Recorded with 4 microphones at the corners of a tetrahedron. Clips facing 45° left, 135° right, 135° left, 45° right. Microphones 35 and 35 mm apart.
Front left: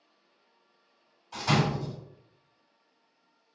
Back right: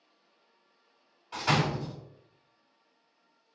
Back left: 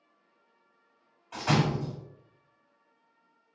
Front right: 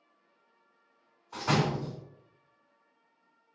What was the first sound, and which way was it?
A door slam, 150° left.